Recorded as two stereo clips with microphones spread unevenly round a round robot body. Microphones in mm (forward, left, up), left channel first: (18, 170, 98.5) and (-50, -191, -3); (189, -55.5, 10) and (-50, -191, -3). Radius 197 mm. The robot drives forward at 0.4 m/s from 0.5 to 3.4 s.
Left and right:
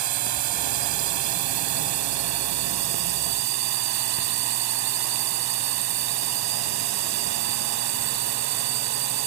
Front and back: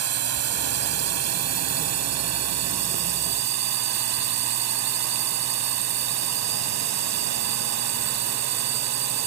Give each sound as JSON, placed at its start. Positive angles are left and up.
{"t": 0.0, "sound": "a drone", "azimuth_deg": -130}